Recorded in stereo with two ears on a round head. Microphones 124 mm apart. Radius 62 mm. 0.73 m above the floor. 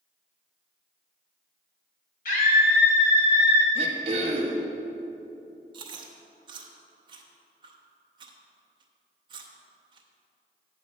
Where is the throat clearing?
45° right (ahead or behind), 1.2 m.